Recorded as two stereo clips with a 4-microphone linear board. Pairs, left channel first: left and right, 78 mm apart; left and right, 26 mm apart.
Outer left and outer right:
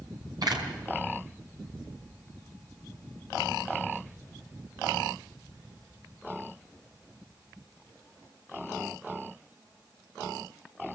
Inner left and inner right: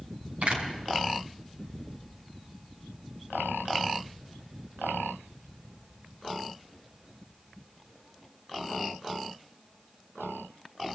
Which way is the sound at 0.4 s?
60° right (ahead or behind).